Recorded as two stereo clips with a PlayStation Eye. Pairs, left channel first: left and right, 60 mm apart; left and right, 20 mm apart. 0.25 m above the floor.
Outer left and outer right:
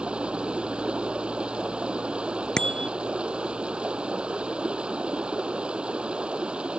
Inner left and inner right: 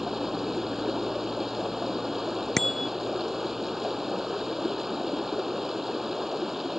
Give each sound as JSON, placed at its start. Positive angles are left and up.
{"t": 0.0, "sound": "running water", "side_deg": -15}
{"t": 2.6, "sound": "a bicycle bell", "side_deg": 15}